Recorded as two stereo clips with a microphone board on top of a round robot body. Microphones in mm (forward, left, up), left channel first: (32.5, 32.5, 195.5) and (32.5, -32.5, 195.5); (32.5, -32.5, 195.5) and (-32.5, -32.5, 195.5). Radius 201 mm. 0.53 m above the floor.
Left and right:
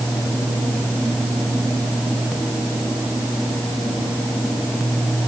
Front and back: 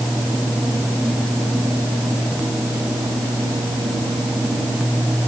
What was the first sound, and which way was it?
Only background noise.